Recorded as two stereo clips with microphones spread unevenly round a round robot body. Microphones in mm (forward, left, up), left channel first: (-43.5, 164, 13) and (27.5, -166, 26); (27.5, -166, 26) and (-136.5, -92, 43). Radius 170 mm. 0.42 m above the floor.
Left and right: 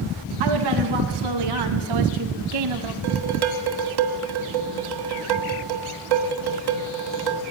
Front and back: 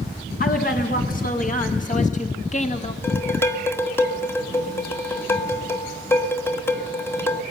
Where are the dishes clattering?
100° right, 1.8 m.